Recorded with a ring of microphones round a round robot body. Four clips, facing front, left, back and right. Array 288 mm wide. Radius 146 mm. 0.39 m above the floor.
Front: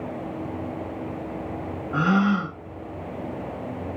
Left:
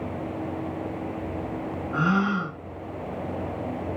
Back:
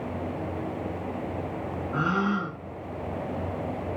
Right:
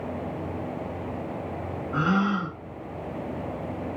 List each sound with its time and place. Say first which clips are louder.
1.9 s a gasp: even, front 5 dB; 5° right, 0.8 m